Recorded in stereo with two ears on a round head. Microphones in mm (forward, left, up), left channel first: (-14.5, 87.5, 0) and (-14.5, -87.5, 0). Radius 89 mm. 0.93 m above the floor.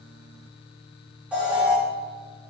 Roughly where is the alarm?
Centre.